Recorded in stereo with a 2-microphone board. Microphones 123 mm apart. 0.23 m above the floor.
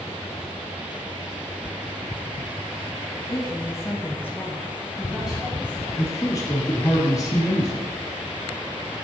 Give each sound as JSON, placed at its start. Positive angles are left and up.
{"t": 3.3, "sound": "a woman speaking", "side_deg": 35, "distance_m": 1.1}
{"t": 6.0, "sound": "a man speaking", "side_deg": 30, "distance_m": 1.3}